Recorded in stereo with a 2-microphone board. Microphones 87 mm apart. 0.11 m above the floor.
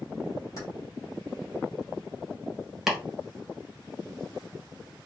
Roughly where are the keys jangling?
Left.